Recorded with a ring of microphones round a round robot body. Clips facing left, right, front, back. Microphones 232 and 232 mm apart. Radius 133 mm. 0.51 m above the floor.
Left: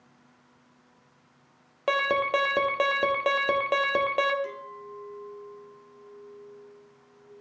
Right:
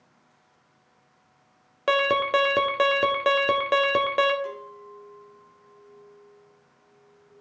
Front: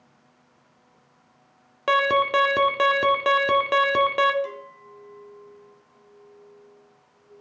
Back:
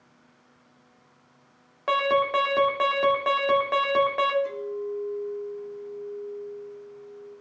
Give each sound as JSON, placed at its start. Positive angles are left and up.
{"t": 1.9, "sound": "an alarm", "azimuth_deg": -25, "distance_m": 1.3}
{"t": 4.4, "sound": "a clink", "azimuth_deg": 20, "distance_m": 3.0}